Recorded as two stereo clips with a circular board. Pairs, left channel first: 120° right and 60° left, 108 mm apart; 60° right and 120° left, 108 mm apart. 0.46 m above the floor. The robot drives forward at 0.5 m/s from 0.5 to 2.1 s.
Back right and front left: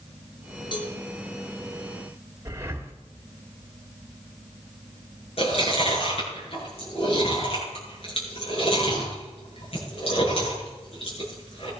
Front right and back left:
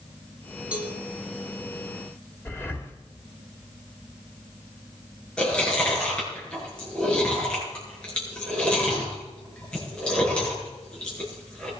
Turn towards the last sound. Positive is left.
turn(degrees=-140)